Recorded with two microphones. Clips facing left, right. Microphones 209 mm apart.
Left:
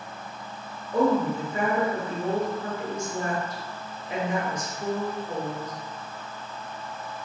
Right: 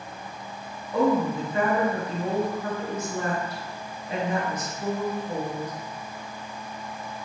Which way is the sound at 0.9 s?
30° left (ahead or behind).